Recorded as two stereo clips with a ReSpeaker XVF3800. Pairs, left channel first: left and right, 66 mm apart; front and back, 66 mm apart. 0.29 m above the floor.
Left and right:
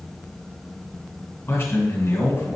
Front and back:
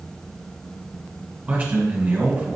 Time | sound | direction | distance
1.5 | a man speaking | 115° left | 1.7 m